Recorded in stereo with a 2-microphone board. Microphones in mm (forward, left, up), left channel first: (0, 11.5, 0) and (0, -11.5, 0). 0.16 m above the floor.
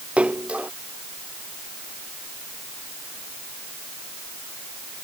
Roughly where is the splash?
Right.